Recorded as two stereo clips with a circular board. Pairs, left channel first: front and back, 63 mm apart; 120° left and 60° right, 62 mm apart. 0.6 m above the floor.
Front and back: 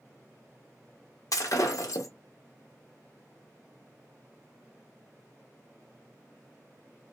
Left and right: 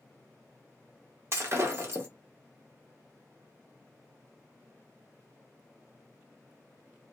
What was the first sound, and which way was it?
Breaking glass, 15° right.